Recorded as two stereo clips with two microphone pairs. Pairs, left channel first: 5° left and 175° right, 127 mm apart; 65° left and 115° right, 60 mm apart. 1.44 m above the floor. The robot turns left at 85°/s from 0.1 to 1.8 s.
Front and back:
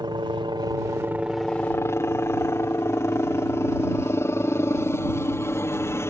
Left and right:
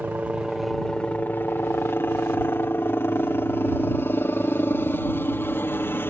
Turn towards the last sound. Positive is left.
turn(degrees=60)